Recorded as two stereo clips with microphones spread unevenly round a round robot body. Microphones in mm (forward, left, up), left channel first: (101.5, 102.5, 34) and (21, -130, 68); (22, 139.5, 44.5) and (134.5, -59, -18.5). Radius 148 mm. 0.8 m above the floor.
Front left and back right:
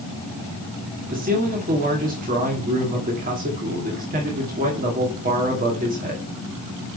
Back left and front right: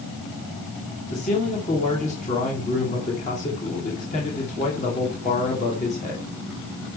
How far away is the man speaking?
About 2.5 m.